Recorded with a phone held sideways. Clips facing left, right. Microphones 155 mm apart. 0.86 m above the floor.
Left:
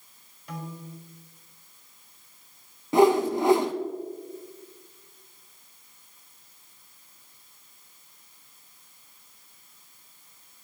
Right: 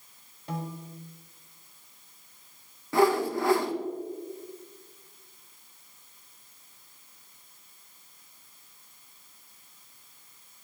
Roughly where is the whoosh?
Centre.